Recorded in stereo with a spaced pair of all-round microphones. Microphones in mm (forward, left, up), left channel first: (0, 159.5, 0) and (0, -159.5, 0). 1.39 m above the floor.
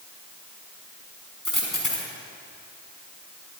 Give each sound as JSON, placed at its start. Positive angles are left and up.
{"t": 1.4, "sound": "a dropped coin", "side_deg": 80, "distance_m": 5.5}